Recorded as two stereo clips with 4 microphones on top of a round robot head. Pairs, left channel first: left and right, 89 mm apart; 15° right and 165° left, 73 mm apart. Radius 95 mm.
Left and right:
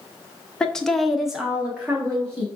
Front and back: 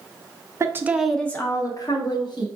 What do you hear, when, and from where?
0.6 s a woman speaking: 165° left, 0.8 m; by 2.5 s 15° right, 1.5 m